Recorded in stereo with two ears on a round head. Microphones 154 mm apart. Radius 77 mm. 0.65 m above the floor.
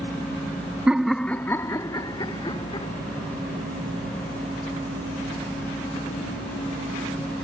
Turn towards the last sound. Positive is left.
turn(degrees=30)  # may be behind; listen again after turning